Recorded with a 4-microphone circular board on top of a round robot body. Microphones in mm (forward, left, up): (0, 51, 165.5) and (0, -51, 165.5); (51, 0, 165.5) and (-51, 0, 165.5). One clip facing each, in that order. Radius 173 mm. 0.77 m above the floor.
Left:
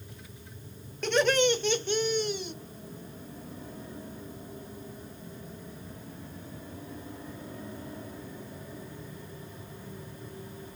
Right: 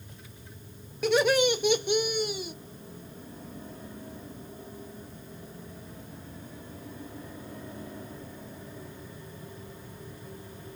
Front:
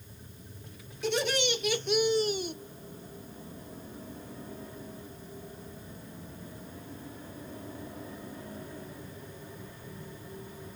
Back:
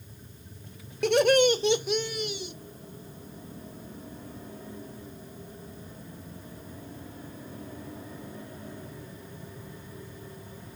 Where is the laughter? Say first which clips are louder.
Right 1 dB, back 9 dB; 170° right, 0.8 m; by 2.5 s 10° right, 0.6 m.